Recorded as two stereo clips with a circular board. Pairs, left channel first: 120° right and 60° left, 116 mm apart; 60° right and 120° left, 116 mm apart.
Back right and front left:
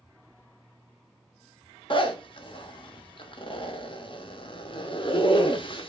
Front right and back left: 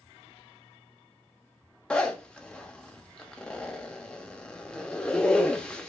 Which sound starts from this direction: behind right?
A zipper, at 1.9 s.